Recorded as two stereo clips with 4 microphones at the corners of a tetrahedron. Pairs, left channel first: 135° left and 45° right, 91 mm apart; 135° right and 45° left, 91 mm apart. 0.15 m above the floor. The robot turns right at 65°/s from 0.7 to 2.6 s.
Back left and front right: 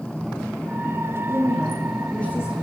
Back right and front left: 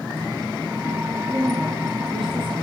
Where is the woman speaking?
Straight ahead, 5.5 m; by 2.5 s 80° left, 5.5 m.